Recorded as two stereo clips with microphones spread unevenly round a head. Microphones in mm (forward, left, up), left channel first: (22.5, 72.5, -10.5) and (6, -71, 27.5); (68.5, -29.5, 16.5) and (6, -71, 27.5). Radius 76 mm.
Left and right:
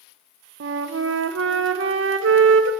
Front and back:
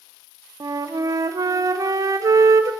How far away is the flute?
About 0.5 m.